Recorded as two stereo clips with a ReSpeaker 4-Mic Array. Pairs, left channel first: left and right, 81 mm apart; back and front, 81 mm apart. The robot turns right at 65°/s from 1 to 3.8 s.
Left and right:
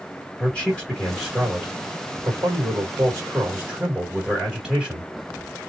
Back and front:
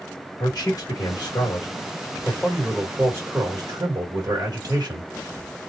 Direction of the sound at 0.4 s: 175° left.